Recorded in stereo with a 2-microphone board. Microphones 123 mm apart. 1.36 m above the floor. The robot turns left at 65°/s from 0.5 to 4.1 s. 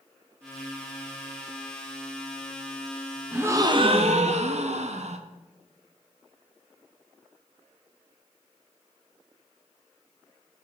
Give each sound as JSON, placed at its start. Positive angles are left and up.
{"t": 3.3, "sound": "a gasp", "azimuth_deg": -10, "distance_m": 0.7}